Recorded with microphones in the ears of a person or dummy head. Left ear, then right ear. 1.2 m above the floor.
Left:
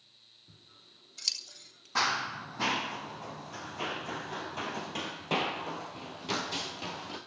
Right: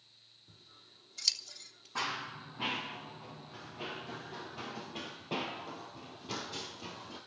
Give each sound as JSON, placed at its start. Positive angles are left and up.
{"t": 0.5, "sound": "scissors", "side_deg": -15, "distance_m": 3.0}
{"t": 1.9, "sound": "running footsteps", "side_deg": 30, "distance_m": 2.5}